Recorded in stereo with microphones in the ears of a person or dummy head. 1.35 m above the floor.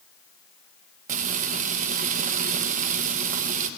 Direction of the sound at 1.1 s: 40° right (ahead or behind).